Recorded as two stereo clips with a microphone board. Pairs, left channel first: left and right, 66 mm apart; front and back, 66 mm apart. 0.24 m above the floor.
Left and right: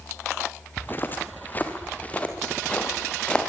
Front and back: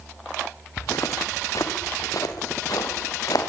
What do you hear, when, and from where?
0.8 s footsteps: 35° left, 3.5 m; by 3.5 s 15° left, 5.5 m